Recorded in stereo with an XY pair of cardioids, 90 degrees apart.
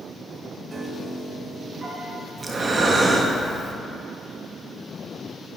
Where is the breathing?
35° right, 0.9 m.